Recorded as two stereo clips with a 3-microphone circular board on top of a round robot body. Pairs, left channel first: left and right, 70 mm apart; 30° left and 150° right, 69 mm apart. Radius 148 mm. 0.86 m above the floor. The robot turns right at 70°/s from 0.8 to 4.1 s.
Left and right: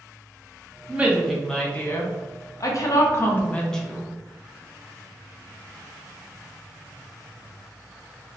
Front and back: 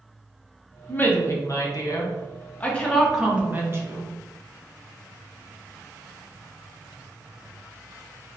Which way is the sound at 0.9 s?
30° right.